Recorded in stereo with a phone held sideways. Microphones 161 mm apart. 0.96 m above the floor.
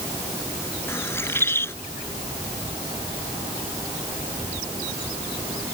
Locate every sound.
0.9 s a bird: 15° left (ahead or behind)